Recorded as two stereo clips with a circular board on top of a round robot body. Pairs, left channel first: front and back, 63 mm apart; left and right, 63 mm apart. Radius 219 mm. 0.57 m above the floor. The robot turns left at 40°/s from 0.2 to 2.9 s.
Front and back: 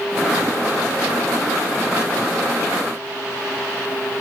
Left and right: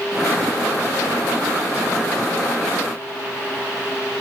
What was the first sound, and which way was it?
Only background noise.